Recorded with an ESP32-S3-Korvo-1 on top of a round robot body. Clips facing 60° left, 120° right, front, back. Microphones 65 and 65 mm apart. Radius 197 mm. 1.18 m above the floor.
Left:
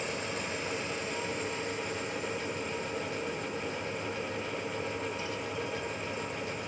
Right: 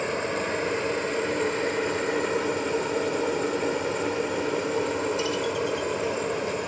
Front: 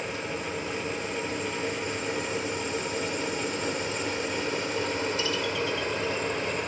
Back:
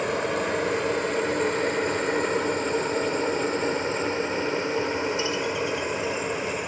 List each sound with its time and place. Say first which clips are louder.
0.0 s a helicopter: right 8 dB, back 7 dB; 160° right; by 6.7 s 100° right